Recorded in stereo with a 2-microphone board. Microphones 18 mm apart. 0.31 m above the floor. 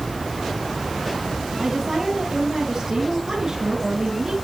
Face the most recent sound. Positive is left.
turn(degrees=-35)  # may be behind; listen again after turning